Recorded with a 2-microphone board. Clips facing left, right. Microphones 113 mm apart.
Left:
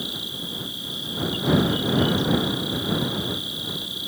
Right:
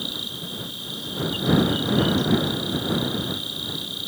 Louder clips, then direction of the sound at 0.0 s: Even; 65° right (ahead or behind).